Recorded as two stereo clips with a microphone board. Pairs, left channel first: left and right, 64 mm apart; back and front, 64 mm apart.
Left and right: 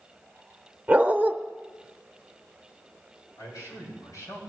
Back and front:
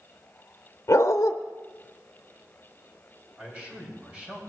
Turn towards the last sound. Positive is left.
turn(degrees=60)